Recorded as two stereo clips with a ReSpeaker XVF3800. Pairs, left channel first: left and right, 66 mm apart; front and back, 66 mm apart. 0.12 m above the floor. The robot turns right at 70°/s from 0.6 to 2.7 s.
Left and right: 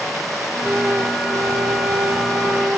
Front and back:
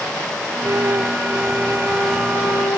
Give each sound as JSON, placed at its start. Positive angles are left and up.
{"t": 0.6, "sound": "a flute", "azimuth_deg": -170}